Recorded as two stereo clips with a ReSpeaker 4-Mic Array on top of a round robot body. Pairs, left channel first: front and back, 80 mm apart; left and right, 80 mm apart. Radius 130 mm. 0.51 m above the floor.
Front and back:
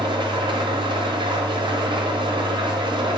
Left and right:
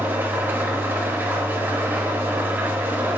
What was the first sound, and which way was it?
An engine running, 155° right.